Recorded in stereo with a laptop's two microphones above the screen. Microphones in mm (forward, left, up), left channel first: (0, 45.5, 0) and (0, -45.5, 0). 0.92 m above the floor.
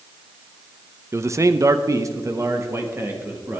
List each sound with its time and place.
1.1 s a man speaking: 30° right (ahead or behind), 0.7 m; by 3.6 s 25° right (ahead or behind), 1.6 m